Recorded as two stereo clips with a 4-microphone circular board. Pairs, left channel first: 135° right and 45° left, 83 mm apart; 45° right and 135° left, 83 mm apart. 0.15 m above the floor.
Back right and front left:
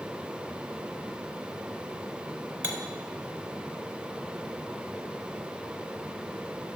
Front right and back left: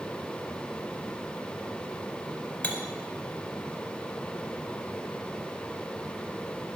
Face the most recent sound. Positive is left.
turn(degrees=5)